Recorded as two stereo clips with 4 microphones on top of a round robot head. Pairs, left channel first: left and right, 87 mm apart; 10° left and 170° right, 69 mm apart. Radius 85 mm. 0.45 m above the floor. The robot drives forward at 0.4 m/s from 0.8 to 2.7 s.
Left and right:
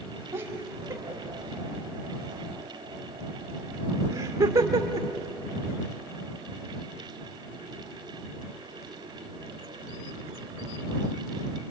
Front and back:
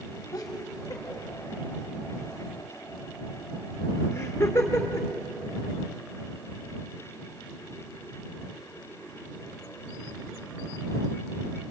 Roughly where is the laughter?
Ahead right.